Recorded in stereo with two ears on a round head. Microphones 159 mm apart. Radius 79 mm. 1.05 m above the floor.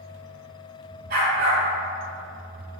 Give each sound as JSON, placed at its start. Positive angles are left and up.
{"t": 1.1, "sound": "a dog barking", "side_deg": -60, "distance_m": 2.5}